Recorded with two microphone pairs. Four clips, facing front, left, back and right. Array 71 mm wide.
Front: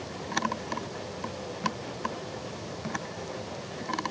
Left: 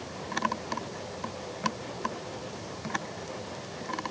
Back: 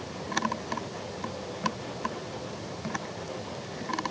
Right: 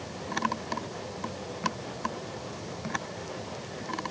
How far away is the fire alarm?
No fire alarm in this recording.